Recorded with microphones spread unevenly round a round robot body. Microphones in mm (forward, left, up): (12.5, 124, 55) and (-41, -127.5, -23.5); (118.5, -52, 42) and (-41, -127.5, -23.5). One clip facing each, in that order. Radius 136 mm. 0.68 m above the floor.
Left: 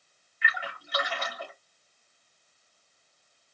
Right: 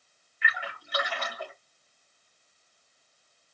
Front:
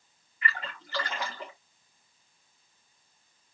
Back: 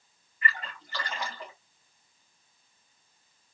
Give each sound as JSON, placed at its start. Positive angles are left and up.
{"t": 0.4, "sound": "a splash", "azimuth_deg": 70, "distance_m": 3.5}